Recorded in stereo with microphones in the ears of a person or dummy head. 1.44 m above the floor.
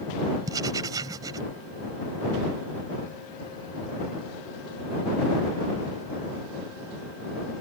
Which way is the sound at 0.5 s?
25° right (ahead or behind).